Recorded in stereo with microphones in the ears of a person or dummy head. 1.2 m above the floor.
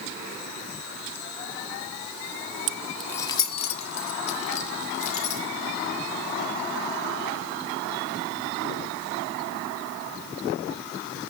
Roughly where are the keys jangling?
Right.